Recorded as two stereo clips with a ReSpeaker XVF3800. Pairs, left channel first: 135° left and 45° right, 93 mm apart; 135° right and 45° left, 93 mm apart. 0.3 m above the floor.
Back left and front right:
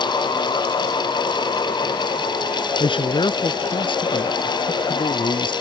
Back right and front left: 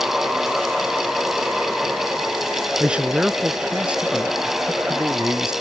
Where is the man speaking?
120° left.